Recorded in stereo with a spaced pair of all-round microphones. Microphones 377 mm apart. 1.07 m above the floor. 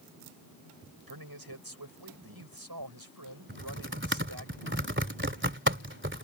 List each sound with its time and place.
1.1 s a man speaking: 80° right
3.5 s typing on a keyboard: 30° right (ahead or behind)